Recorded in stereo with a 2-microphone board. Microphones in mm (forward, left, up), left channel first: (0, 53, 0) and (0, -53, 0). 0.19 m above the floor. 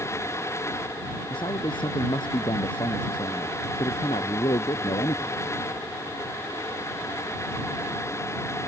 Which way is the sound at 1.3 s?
50° left (ahead or behind).